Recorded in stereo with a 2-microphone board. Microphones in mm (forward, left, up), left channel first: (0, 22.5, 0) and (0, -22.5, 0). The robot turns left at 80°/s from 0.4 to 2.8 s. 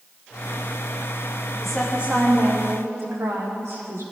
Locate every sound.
1.6 s a woman speaking: 10° left, 7 m; by 4.0 s 85° right, 7 m